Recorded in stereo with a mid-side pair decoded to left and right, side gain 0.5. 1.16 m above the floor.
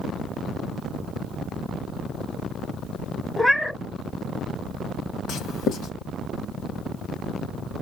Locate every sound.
3.4 s a cat meowing: 10° left, 1.0 m
5.3 s writing: 70° left, 1.5 m